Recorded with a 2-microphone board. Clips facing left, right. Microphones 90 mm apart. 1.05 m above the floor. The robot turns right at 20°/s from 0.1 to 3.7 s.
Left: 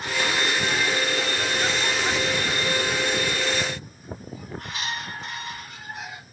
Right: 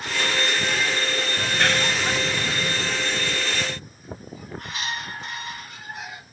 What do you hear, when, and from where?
1.4 s a clap: 70° right (ahead or behind); by 2.9 s 40° right (ahead or behind)